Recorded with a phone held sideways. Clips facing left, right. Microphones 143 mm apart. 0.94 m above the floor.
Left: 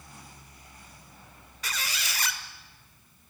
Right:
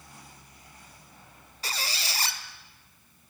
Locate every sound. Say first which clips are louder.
1.6 s a squeak: right 1 dB; 30° right (ahead or behind), 1.2 m